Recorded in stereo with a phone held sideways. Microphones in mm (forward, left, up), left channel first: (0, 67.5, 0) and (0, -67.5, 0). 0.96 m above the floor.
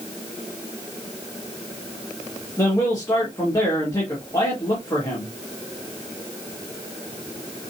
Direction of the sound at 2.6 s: 25° left (ahead or behind).